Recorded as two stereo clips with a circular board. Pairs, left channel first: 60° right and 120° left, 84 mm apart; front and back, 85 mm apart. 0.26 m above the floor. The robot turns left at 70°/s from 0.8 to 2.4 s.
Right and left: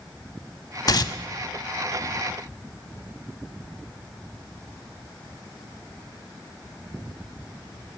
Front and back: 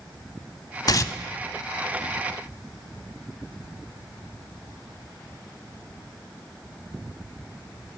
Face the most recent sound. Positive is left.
turn(degrees=-135)